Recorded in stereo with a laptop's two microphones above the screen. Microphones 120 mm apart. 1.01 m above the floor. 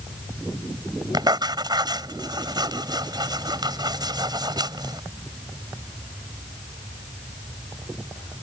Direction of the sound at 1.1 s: 35° right (ahead or behind).